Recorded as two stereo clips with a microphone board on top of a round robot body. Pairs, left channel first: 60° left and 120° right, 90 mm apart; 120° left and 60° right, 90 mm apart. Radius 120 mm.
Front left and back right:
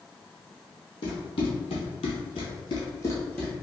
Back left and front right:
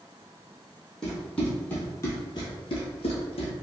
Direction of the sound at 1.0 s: 35° left.